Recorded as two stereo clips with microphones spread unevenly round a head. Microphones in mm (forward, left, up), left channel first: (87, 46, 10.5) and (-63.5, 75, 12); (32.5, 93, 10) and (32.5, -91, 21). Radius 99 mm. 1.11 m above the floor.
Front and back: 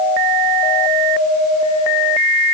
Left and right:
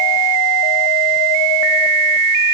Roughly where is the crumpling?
No crumpling in this recording.